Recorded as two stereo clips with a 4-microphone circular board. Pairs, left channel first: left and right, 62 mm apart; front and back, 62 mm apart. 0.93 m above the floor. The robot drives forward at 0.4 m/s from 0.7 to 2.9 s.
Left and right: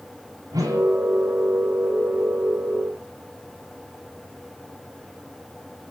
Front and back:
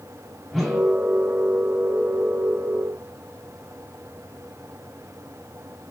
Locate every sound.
0.5 s a whoosh: 90° right, 4 m